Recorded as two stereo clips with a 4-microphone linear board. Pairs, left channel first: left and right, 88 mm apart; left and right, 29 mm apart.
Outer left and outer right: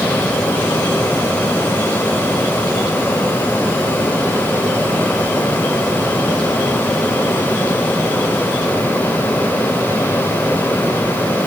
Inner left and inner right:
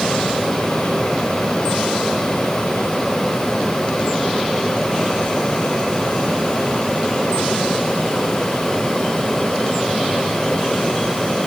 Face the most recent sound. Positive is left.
No sound to turn to.